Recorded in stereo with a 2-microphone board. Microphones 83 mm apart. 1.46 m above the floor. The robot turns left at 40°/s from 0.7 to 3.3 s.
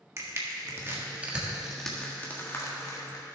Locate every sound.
0.2 s crushing: 35° right (ahead or behind), 1.6 m; by 3.2 s 55° left (ahead or behind), 1.6 m